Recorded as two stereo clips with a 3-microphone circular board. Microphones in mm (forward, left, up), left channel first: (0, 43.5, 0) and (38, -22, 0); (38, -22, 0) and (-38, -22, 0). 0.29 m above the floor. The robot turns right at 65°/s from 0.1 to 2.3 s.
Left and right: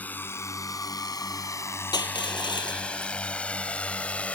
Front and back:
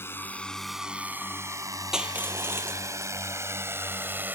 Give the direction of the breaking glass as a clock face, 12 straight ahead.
I don't hear breaking glass.